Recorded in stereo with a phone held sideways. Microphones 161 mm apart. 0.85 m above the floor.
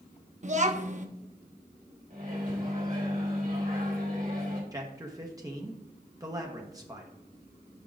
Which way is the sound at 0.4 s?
50° right (ahead or behind).